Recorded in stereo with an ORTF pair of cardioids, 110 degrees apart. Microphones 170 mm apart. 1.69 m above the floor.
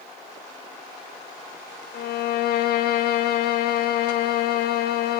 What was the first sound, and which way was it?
A violin, 70° left.